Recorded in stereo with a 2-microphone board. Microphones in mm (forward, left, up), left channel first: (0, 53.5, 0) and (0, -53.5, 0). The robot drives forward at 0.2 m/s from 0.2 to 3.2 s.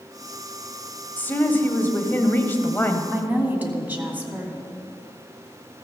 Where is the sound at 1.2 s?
15° left (ahead or behind), 1.1 m.